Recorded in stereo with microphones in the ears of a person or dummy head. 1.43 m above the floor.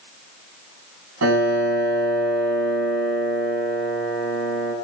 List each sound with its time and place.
1.2 s a piano: 85° right, 9 m